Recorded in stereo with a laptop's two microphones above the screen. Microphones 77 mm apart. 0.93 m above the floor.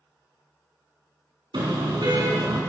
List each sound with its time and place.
1.5 s a car horn: 80° right, 4.5 m